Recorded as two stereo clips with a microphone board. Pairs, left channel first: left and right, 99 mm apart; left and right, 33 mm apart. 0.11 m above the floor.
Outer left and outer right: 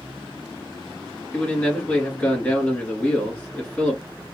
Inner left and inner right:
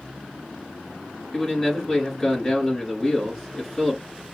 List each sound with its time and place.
1.3 s a man speaking: 15° left (ahead or behind), 1.6 m